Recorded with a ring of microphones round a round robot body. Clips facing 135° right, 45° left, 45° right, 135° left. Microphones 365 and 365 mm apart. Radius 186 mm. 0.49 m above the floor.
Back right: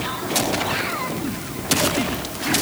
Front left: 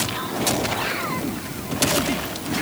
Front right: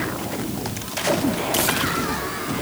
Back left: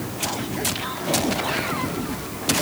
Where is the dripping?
I don't hear dripping.